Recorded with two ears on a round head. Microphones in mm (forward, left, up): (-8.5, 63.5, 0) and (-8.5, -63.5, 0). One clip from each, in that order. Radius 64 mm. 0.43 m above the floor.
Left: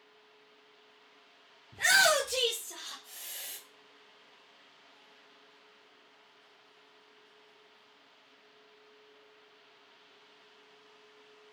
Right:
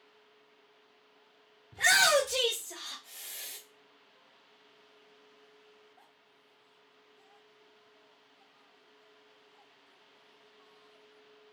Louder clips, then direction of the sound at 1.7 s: Right 1 dB; 10° right (ahead or behind).